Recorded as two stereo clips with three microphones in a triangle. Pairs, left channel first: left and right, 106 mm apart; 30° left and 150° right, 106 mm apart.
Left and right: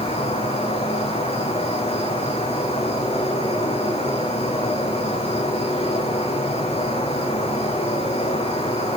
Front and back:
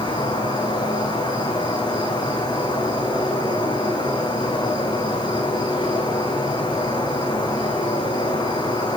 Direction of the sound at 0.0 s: 75° left.